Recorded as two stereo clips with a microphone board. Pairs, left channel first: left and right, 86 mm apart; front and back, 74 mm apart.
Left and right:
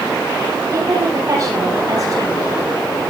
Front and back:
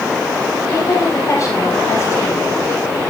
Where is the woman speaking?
40° right, 7 m; by 2.4 s 45° right, 7 m.